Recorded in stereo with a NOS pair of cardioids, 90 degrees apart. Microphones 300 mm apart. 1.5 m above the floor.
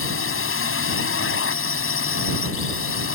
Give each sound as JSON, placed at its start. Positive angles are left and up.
{"t": 0.0, "sound": "a drone", "azimuth_deg": 40}